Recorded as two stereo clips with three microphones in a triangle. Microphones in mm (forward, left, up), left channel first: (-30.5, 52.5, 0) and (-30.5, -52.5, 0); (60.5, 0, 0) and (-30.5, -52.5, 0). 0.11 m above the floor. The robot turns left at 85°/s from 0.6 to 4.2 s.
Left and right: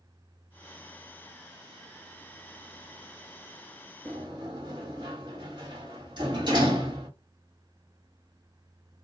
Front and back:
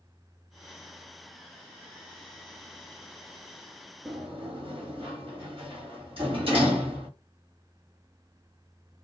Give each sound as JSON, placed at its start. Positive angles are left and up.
{"t": 4.0, "sound": "a sliding door", "azimuth_deg": -115, "distance_m": 1.7}